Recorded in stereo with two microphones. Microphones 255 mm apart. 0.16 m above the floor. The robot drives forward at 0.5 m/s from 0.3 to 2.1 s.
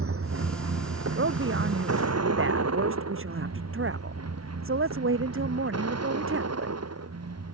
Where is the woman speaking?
55° right (ahead or behind).